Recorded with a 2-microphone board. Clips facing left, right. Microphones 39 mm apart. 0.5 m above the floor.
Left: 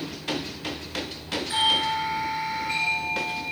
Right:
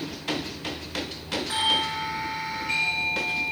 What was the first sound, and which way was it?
A doorbell, 65° right (ahead or behind).